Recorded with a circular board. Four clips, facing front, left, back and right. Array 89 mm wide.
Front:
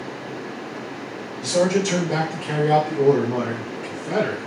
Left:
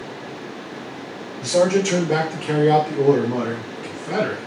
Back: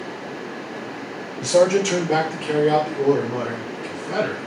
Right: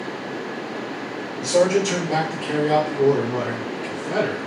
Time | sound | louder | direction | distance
1.4 | a man speaking | even, back 3 dB | 175° right | 1.1 m